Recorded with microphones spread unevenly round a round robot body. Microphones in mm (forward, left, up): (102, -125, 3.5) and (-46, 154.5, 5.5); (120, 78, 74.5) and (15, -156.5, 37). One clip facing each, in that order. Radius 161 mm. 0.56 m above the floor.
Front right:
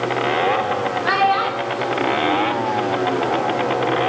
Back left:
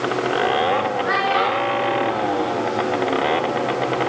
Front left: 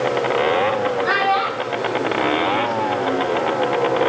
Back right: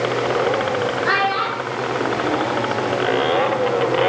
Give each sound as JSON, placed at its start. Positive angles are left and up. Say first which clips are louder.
{"t": 1.1, "sound": "a child speaking", "louder": "even, front left 1 dB", "azimuth_deg": -20, "distance_m": 5.0}